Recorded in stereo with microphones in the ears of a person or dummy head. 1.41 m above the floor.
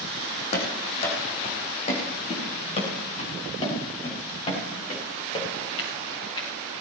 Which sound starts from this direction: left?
Running footsteps, at 0.5 s.